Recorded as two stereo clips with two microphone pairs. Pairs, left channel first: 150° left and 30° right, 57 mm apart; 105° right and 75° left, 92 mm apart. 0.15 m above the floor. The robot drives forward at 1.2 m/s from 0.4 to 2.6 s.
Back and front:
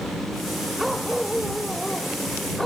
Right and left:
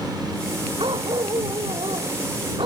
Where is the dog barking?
60° left; by 2.7 s 65° left.